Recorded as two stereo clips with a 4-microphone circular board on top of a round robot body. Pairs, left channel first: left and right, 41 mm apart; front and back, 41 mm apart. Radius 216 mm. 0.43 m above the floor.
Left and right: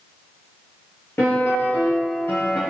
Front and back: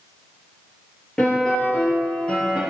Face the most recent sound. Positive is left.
turn(degrees=70)